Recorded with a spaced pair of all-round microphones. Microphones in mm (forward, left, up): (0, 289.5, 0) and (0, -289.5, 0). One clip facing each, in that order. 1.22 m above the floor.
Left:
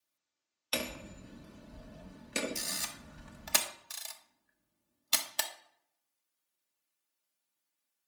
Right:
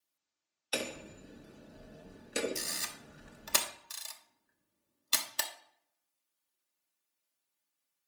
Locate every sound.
0.7 s hammering: 30° left (ahead or behind), 0.6 m
2.5 s a camera shutter: 15° left (ahead or behind), 0.9 m